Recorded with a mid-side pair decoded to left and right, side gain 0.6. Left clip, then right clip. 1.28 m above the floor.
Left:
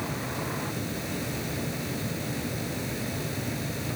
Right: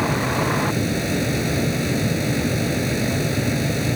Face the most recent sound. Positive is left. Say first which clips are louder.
# right 12 dB
turn(degrees=-45)